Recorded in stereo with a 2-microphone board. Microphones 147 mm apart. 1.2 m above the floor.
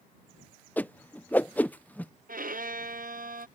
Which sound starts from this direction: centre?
A whoosh, at 0.8 s.